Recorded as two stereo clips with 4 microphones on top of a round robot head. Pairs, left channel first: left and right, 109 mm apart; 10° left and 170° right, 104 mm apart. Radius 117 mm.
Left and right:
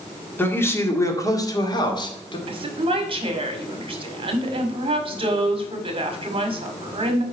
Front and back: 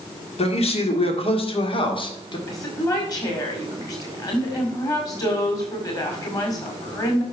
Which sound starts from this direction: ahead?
A man speaking, at 0.4 s.